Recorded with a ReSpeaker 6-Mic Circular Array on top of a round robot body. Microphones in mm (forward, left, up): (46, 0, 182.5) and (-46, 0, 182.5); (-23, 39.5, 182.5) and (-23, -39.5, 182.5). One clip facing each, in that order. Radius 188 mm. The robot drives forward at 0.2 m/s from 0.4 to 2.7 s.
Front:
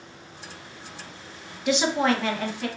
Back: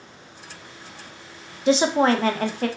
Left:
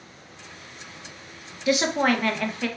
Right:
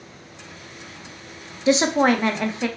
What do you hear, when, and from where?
1.7 s a woman speaking: 140° right, 0.6 m; by 2.7 s 155° right, 0.7 m